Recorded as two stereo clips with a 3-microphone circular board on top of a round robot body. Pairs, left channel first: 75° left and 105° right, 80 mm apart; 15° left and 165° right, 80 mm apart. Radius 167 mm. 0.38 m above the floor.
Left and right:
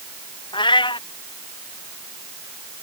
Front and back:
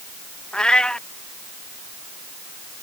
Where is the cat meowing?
95° left.